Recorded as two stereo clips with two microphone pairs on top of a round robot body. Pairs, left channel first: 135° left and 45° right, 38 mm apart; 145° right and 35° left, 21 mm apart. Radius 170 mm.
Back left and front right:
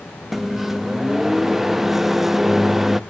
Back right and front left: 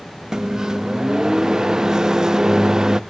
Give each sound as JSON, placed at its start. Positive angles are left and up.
{"t": 0.3, "sound": "a microwave", "azimuth_deg": 60, "distance_m": 0.6}